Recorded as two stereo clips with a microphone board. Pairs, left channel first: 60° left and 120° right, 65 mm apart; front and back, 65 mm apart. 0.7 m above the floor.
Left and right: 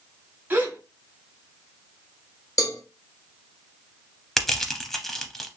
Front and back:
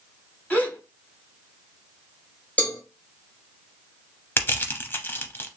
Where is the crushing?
25° right, 0.6 m.